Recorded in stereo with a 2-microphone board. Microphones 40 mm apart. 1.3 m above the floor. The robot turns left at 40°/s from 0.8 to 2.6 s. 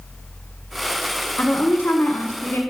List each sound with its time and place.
1.4 s a woman speaking: 135° left, 1.2 m; by 2.6 s 90° left, 1.2 m